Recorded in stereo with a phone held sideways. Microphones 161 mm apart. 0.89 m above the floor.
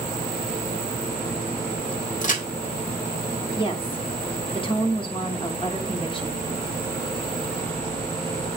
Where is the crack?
50° left (ahead or behind), 1.4 m.